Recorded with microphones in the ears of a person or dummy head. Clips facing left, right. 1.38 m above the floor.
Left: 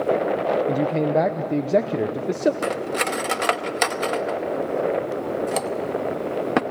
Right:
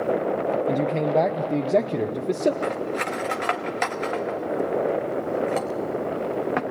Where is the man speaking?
5° left (ahead or behind), 0.8 m.